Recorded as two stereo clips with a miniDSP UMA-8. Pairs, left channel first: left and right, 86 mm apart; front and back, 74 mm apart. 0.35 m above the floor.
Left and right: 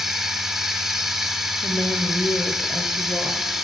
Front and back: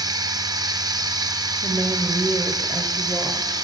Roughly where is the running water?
Behind.